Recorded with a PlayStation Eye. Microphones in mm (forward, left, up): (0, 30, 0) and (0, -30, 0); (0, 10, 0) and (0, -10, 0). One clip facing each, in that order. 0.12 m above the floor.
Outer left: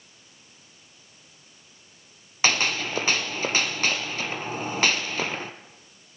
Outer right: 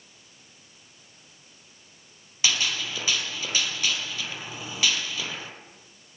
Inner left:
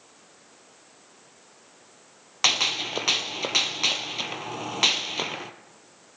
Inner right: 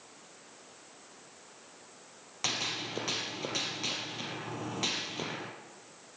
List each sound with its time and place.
2.4 s a gunshot: 50° left (ahead or behind), 1.2 m